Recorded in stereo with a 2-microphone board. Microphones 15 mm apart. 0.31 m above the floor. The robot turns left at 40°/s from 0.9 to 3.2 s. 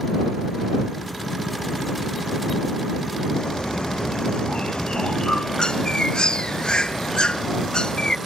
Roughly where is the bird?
Left.